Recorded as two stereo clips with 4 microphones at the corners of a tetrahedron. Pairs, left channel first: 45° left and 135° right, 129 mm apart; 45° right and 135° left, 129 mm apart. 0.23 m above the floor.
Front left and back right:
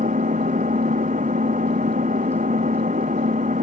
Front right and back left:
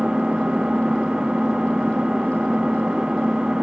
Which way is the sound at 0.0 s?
140° right.